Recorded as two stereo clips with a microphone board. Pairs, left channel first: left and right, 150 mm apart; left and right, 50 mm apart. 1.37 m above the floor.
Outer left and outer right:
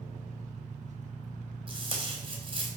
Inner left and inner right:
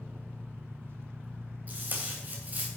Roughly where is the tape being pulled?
Right.